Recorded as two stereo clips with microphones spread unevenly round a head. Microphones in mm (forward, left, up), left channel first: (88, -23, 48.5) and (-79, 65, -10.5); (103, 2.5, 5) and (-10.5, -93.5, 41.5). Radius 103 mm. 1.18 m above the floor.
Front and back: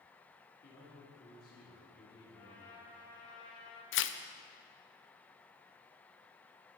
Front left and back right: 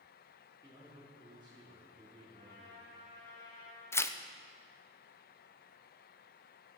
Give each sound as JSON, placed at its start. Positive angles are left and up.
{"t": 0.6, "sound": "a man speaking", "azimuth_deg": -75, "distance_m": 3.5}
{"t": 2.3, "sound": "a trumpet", "azimuth_deg": 50, "distance_m": 4.5}
{"t": 3.9, "sound": "tearing paper", "azimuth_deg": -10, "distance_m": 0.7}